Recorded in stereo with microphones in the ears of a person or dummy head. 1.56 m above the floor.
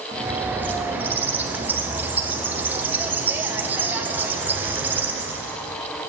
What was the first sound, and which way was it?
A bird, 10° right (ahead or behind).